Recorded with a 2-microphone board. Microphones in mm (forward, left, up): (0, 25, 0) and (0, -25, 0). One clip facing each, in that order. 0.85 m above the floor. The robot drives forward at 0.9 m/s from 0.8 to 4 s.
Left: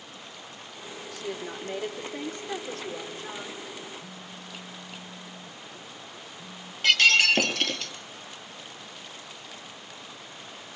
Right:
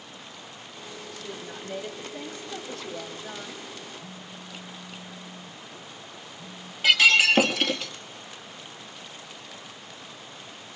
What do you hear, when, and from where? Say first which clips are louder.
1.1 s a woman speaking: left 5 dB; 70° left (ahead or behind), 2.5 m; by 3.6 s 40° left (ahead or behind), 3.5 m
4.0 s a phone buzzing: right 1 dB; 15° left (ahead or behind), 2 m
6.8 s breaking glass: right 2 dB; 10° right (ahead or behind), 1.8 m